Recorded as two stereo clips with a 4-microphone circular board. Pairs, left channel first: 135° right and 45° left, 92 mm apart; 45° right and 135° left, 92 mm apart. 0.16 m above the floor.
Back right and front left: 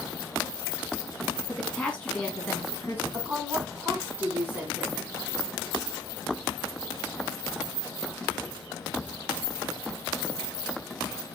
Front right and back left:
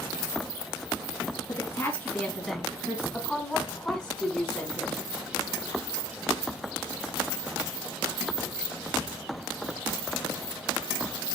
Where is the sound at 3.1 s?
15° left, 1.6 m.